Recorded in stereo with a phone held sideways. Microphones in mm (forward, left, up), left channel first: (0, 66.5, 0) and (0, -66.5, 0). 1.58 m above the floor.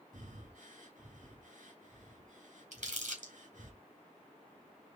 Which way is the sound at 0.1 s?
70° right (ahead or behind).